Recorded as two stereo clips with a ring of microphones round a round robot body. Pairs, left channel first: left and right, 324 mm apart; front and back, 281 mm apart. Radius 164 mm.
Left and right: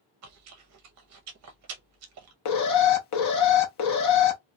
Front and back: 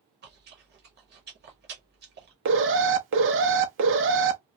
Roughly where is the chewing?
Behind right.